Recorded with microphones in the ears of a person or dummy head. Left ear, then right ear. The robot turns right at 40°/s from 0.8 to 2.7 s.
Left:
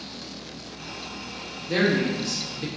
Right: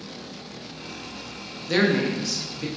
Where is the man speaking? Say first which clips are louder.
Right 1 dB; 35° right, 0.5 m; by 2.7 s 5° left, 0.5 m.